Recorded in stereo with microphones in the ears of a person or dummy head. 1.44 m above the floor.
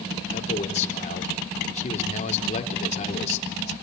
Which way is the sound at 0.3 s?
40° left (ahead or behind).